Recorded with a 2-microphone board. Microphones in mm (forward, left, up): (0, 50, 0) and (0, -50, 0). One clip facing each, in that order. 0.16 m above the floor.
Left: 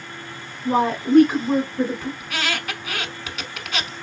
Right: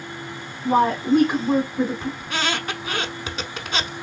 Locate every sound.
0.7 s a woman speaking: 10° right (ahead or behind), 1.3 m; by 2.1 s 30° right (ahead or behind), 1.3 m
2.2 s a squeak: 30° right (ahead or behind), 0.7 m